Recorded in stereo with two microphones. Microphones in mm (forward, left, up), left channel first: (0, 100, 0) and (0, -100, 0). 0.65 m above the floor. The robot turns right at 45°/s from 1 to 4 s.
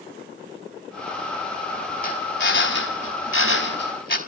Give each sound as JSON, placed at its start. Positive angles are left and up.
{"t": 2.0, "sound": "a drill", "side_deg": 40, "distance_m": 4.5}